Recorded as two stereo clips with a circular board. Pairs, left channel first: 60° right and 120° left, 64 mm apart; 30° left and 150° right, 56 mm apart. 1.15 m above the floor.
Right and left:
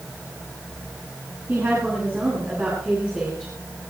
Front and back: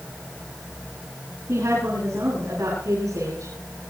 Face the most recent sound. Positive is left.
turn(degrees=-170)